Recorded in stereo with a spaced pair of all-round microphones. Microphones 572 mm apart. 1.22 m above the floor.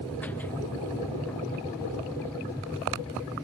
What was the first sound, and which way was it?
A machine running, 5° left (ahead or behind).